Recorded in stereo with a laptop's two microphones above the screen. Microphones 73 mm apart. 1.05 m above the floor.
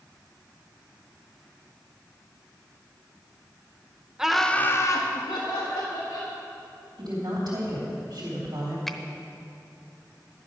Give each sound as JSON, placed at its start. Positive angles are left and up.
{"t": 4.2, "sound": "laughter", "side_deg": -10, "distance_m": 1.0}
{"t": 7.0, "sound": "a woman speaking", "side_deg": -80, "distance_m": 2.5}
{"t": 8.9, "sound": "a finger snap", "side_deg": 0, "distance_m": 0.8}